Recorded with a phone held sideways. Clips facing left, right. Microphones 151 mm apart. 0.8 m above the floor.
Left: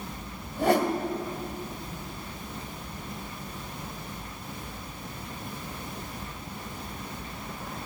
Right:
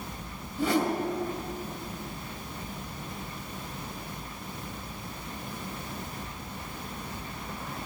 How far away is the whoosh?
About 1.7 m.